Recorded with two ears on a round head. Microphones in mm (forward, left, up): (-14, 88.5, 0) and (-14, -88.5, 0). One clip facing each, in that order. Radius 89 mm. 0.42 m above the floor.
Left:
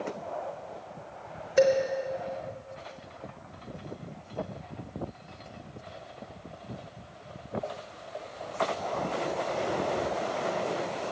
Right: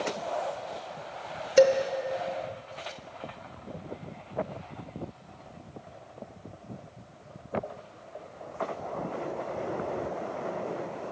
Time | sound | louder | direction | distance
1.6 | dishes clattering | right 2 dB | 40° right (ahead or behind) | 0.7 m